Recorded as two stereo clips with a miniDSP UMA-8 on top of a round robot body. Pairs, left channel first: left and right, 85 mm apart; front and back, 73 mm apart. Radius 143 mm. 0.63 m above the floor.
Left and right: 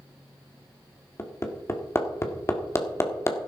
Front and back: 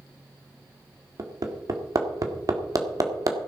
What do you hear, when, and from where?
1.2 s hammering: 145° left, 2.0 m